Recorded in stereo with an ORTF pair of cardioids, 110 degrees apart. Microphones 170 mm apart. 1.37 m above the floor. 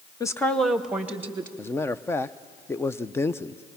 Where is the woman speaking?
20° left, 0.8 m; by 1.5 s 15° right, 2 m.